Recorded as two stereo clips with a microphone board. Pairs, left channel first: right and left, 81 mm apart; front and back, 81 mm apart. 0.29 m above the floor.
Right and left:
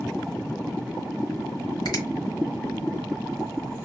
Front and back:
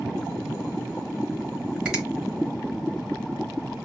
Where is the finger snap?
105° right, 1.5 m.